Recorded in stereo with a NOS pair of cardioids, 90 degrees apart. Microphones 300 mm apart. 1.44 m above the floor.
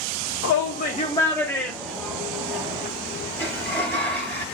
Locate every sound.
0.4 s a shout: 50° left, 0.7 m; by 2.9 s 15° right, 1.8 m
3.4 s a sliding door: 5° left, 1.9 m